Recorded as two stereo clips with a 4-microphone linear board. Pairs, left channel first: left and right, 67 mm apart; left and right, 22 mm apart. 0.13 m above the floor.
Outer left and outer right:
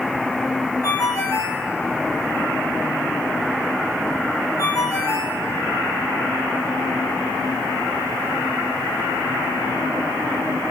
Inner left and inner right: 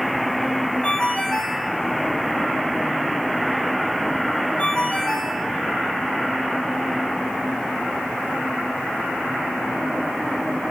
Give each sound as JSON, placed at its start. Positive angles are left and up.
{"t": 0.8, "sound": "a ringtone", "side_deg": 60, "distance_m": 5.5}